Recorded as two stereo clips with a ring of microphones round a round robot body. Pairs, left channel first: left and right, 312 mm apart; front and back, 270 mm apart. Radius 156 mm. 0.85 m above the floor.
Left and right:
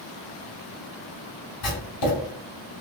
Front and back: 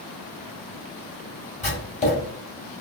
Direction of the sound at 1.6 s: 65° left.